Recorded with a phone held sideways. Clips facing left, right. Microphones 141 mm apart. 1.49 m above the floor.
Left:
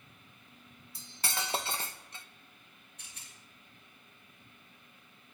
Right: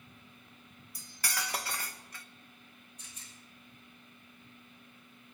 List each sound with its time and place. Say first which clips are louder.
0.9 s cutlery clinking: left 1 dB; 25° left (ahead or behind), 0.7 m
3.0 s a rattle: right 2 dB; 70° left (ahead or behind), 7.5 m